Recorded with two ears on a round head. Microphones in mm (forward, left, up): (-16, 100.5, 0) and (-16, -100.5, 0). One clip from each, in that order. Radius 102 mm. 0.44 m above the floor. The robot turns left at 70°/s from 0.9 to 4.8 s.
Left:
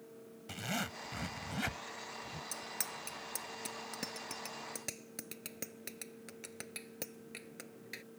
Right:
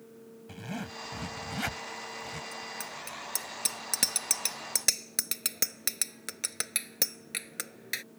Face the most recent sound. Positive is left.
turn(degrees=-60)  # may be behind; listen again after turning